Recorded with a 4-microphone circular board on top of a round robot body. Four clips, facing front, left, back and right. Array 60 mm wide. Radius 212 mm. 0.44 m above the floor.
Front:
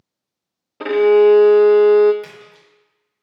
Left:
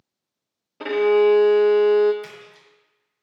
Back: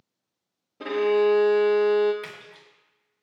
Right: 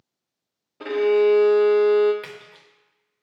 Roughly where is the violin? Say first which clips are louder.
Left 1 dB, front 10 dB; ahead.